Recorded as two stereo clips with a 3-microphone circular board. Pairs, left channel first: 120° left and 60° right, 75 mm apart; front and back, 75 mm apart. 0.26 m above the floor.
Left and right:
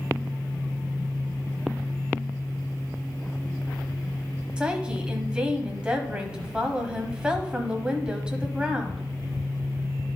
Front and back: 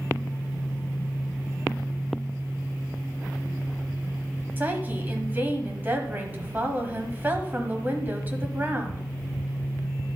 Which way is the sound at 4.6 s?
130° right.